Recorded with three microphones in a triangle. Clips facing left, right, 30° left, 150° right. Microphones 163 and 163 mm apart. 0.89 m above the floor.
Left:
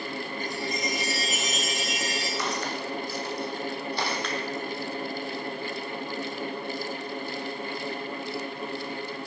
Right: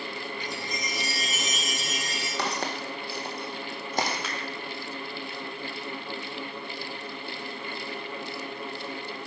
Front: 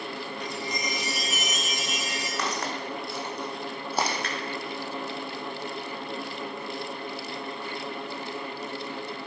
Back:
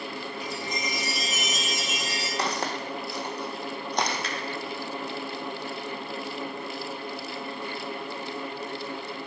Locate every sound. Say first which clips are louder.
0.4 s a chime: left 4 dB, even; 45° right, 4.5 m
2.4 s footsteps: right 3 dB, back 2 dB; 95° right, 2 m; by 4.2 s 45° right, 1.9 m
4.2 s a finger snap: left 4 dB, even; 5° right, 1.7 m